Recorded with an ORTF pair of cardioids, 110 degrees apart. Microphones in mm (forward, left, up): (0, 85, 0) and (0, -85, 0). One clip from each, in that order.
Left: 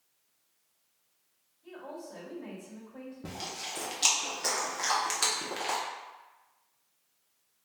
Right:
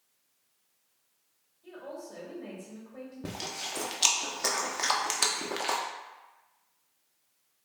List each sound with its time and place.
1.6 s a woman speaking: 25° right, 2.0 m
3.2 s chewing: 20° right, 0.6 m